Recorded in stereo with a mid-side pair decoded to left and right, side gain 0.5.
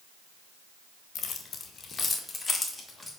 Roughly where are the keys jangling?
Ahead left.